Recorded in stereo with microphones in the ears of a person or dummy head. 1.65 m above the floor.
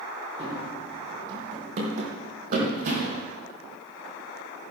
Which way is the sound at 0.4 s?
35° right (ahead or behind).